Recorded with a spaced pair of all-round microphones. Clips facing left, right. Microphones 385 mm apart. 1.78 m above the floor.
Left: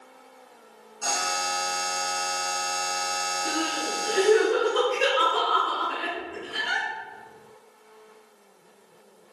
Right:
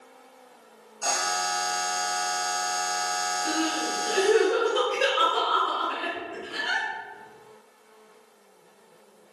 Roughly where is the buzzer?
Left.